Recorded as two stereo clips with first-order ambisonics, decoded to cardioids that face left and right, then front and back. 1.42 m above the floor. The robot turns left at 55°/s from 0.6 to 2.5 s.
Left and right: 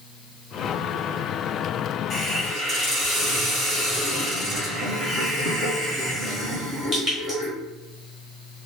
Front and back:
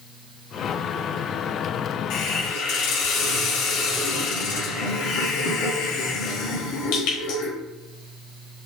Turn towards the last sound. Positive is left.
turn(degrees=-15)